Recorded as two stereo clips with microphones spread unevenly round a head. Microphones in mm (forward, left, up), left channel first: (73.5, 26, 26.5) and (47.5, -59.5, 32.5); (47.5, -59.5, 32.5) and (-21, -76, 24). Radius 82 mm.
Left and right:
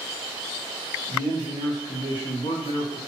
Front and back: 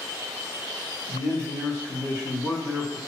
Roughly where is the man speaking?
Ahead left.